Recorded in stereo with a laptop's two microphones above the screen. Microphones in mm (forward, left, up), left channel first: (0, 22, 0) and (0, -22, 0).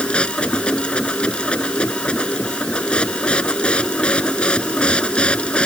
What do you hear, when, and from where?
0.0 s a machine running: 20° left (ahead or behind)